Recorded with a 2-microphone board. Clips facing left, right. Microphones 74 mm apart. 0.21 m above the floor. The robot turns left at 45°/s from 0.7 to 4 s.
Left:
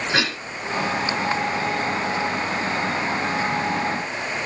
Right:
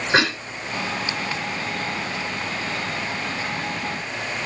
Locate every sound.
0.1 s a cough: 35° right (ahead or behind), 3.5 m